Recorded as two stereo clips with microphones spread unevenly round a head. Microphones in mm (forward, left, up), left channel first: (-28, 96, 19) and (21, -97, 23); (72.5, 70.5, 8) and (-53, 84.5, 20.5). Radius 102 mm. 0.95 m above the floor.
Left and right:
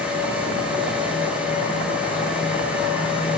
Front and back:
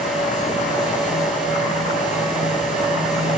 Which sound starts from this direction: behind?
A fan, at 0.0 s.